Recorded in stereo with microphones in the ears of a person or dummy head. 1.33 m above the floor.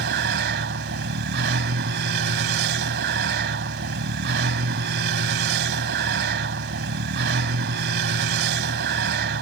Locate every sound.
0.0 s a vehicle: 60° right (ahead or behind)